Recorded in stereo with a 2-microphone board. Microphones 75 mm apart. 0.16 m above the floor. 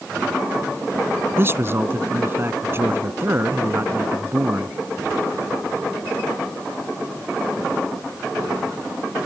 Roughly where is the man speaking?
Right.